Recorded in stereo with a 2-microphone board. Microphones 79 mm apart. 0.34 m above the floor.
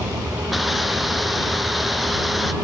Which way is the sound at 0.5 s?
Centre (ahead or behind).